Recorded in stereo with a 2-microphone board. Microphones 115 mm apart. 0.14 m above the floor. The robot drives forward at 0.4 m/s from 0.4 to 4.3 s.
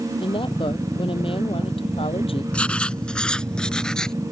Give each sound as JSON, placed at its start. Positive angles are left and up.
{"t": 0.2, "sound": "a woman speaking", "side_deg": 45}
{"t": 2.5, "sound": "writing", "side_deg": 10}